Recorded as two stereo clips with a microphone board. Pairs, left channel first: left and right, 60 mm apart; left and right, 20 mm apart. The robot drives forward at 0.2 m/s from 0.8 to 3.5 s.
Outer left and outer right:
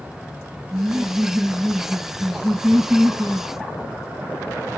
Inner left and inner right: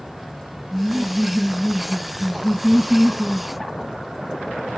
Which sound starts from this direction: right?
Laughter, at 0.7 s.